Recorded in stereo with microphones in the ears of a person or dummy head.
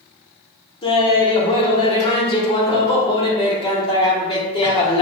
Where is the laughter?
30° left (ahead or behind), 1.1 m.